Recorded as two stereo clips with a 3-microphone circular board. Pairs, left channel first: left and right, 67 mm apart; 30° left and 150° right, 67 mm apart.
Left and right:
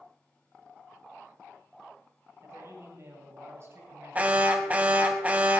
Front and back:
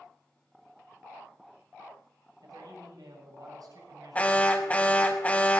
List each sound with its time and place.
2.4 s a man speaking: 135° right, 7.5 m
4.2 s an alarm: 30° right, 1.5 m